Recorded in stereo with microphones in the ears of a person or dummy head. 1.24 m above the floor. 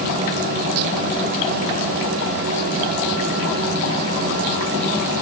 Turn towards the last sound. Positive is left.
No sound to turn to.